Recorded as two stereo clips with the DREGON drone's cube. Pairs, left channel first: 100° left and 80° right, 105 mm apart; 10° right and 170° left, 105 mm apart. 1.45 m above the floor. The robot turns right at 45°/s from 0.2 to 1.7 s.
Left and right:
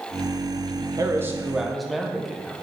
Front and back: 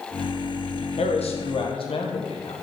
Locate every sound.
1.0 s a man speaking: 20° right, 0.7 m; by 2.5 s 10° left, 0.7 m